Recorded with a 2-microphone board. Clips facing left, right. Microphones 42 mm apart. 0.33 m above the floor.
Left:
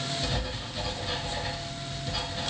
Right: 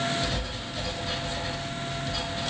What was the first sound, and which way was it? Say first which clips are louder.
Writing: right 1 dB; 5° left (ahead or behind).